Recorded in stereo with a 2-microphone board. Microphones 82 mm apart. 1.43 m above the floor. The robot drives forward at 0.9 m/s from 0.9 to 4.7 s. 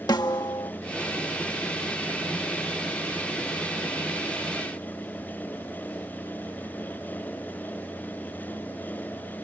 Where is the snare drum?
55° left (ahead or behind).